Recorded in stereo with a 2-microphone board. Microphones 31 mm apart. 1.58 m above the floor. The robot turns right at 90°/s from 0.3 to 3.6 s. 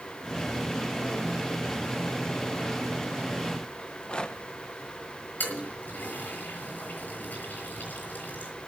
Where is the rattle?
35° left (ahead or behind), 1.1 m.